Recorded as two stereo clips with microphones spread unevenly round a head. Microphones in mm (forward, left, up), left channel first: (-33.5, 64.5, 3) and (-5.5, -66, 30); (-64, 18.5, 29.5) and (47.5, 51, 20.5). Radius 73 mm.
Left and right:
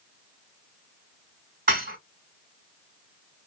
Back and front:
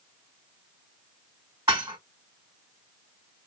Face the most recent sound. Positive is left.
turn(degrees=-60)